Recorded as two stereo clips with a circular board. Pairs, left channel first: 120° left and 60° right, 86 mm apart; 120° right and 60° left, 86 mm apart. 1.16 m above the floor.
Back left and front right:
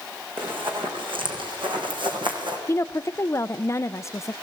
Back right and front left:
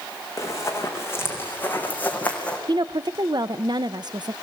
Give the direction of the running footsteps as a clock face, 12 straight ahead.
2 o'clock.